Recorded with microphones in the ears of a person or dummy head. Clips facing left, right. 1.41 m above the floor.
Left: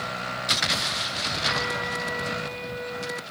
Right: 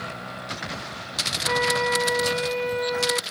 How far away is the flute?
About 0.7 m.